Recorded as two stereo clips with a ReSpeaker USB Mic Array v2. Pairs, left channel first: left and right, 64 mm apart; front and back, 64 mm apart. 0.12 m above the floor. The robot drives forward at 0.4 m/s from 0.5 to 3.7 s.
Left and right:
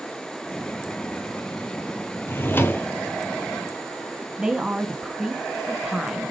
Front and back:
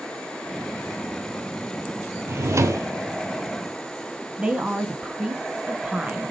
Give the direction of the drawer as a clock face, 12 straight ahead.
7 o'clock.